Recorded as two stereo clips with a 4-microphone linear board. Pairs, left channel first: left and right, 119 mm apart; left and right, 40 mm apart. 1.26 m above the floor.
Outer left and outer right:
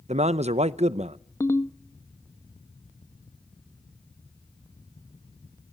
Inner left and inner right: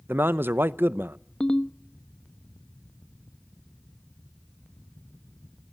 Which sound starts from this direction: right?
A man speaking, at 0.1 s.